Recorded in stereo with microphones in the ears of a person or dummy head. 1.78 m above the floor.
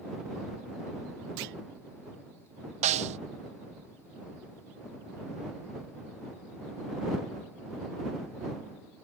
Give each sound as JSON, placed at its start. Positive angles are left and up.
{"t": 1.4, "sound": "a clunk", "side_deg": -60}
{"t": 2.8, "sound": "a snare drum", "side_deg": -40}